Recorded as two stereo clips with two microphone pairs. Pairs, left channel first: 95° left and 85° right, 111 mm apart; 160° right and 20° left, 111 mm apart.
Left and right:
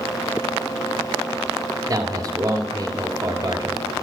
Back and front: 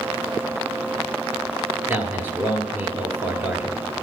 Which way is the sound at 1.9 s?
40° right.